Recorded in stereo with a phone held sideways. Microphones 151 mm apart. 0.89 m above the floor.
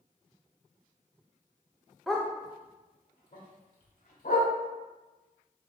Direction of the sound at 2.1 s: Centre (ahead or behind).